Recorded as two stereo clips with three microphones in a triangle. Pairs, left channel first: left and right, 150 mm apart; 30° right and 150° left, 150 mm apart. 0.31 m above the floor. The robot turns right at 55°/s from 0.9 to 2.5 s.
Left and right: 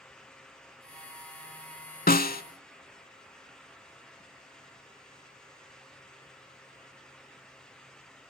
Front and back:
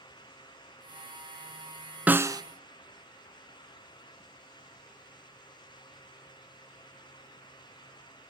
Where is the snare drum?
70° left, 0.6 m; by 2.4 s 90° left, 0.6 m.